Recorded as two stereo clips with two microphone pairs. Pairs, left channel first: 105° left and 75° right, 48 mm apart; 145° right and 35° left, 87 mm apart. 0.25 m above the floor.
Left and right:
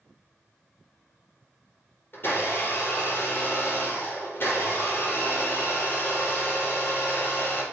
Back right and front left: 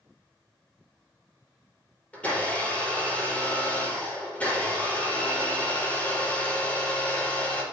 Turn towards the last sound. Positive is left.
turn(degrees=145)